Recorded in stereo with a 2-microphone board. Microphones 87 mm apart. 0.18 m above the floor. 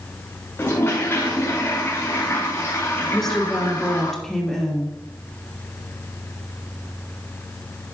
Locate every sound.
0.6 s a toilet flushing: 30° left (ahead or behind), 3 m
3.1 s a woman speaking: 5° left (ahead or behind), 4 m